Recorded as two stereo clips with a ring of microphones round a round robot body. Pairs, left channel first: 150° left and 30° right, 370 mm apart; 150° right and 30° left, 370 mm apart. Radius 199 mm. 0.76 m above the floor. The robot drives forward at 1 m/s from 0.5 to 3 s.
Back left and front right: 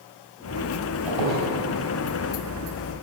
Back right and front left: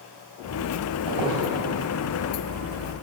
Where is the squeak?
5° right, 3 m.